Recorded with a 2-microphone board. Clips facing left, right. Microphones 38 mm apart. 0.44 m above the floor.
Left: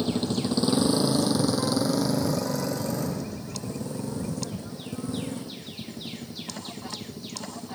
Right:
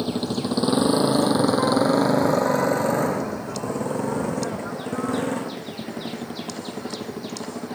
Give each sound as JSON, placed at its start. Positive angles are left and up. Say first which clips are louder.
{"t": 0.0, "sound": "a motorcycle", "louder": "right 1 dB", "side_deg": -15}